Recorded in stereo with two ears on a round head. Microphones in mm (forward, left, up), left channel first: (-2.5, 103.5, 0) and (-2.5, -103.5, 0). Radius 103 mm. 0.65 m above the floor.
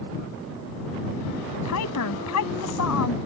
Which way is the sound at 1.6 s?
80° left.